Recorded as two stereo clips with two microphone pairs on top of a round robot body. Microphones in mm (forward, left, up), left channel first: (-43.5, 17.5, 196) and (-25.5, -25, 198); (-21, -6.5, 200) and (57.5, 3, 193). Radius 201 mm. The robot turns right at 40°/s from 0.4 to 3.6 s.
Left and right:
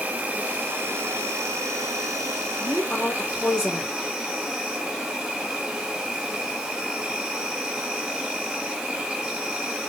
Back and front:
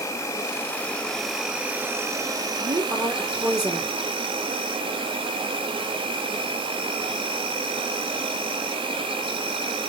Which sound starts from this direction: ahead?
A woman speaking, at 2.6 s.